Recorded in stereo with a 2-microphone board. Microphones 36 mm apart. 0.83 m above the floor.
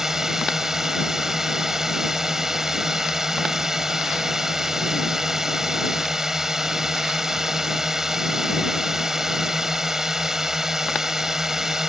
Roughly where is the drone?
Centre.